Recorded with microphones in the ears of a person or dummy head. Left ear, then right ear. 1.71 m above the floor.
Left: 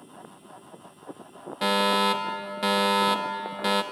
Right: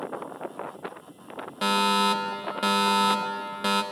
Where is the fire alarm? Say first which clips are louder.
Even; 5° left (ahead or behind), 1.4 m.